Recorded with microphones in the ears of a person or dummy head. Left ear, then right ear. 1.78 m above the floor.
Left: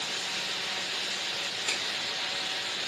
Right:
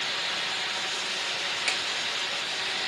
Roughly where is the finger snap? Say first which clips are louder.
Right 3 dB; right.